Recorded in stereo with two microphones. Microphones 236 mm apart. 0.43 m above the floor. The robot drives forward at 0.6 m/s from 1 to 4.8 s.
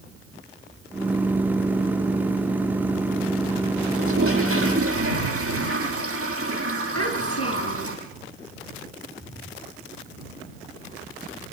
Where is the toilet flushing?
60° right (ahead or behind), 7.5 m; by 8.0 s 65° right (ahead or behind), 7.5 m.